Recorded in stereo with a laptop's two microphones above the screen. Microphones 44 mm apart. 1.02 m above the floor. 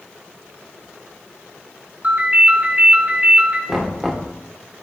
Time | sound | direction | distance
2.0 | a ringtone | 40° right (ahead or behind) | 5 m
3.7 | knocking | 5° right (ahead or behind) | 2 m